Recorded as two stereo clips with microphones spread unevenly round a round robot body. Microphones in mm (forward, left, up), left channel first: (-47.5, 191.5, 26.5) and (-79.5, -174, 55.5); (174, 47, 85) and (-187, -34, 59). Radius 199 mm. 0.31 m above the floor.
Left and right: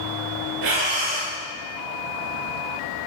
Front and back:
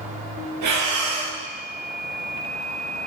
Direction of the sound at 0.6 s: 125° right.